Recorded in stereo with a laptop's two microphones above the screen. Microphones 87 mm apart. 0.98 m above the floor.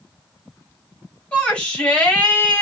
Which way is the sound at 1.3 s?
15° left (ahead or behind).